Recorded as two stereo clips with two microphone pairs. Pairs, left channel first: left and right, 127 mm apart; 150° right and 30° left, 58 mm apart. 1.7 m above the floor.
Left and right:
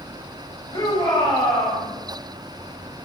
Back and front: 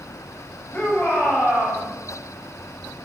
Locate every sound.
0.7 s a shout: 150° left, 7 m; by 1.8 s 155° left, 8 m